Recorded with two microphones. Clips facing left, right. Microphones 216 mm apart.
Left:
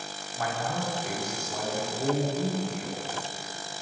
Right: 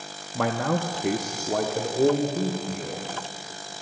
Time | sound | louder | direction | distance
0.3 | a man speaking | right 7 dB | 75° right (ahead or behind) | 1.5 m